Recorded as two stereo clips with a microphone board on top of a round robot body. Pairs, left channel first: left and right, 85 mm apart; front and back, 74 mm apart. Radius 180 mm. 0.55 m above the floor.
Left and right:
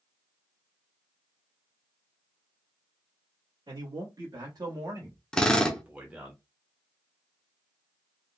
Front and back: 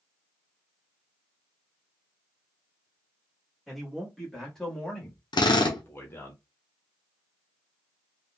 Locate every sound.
3.7 s a man speaking: 90° right, 2.0 m; by 6.3 s 15° right, 1.4 m
5.3 s a drill: 10° left, 0.9 m